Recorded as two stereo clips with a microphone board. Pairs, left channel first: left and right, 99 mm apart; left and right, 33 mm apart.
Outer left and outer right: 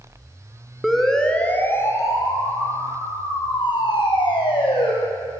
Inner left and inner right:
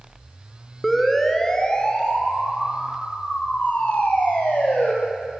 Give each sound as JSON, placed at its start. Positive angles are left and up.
{"t": 0.8, "sound": "a siren", "side_deg": 0, "distance_m": 2.5}